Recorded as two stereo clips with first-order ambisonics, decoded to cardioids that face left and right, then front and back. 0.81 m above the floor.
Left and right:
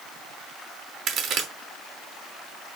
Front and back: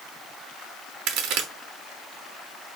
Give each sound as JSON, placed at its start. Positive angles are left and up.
{"t": 1.1, "sound": "a crack", "azimuth_deg": -145, "distance_m": 0.9}